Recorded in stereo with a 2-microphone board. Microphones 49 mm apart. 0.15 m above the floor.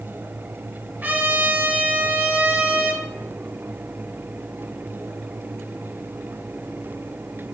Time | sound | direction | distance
1.0 | a trumpet | 35° right (ahead or behind) | 2.5 m